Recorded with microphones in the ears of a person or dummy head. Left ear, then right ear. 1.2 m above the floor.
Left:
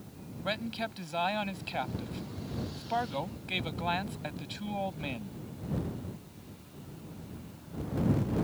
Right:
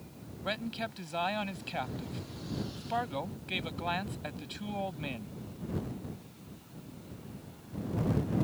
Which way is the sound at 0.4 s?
5° left (ahead or behind).